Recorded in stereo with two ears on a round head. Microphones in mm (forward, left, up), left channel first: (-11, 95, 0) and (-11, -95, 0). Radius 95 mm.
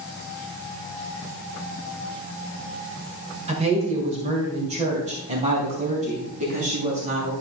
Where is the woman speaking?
30° right (ahead or behind), 2 m; by 7.3 s 35° right (ahead or behind), 4 m.